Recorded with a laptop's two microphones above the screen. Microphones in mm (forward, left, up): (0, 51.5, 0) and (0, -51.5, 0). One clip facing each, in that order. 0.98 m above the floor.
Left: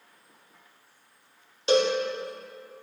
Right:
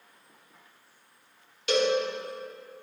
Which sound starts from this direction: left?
A cowbell, at 1.7 s.